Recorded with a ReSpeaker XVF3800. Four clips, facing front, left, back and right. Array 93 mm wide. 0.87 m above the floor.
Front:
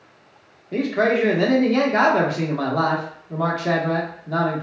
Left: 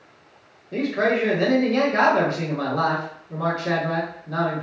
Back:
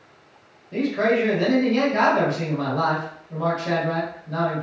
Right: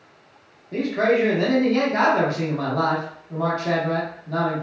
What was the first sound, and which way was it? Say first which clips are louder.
A man speaking: right 2 dB, front 1 dB; straight ahead.